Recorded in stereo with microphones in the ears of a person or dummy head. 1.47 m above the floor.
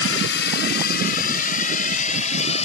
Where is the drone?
75° left (ahead or behind); by 2.6 s 40° left (ahead or behind).